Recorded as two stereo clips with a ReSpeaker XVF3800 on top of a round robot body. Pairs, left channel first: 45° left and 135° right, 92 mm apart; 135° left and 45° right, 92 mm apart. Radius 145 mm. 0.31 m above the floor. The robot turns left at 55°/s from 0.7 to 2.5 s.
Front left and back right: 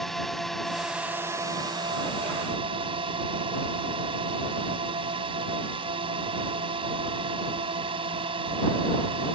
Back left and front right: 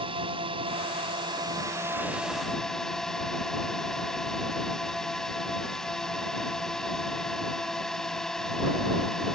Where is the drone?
40° right; by 9.3 s 140° right.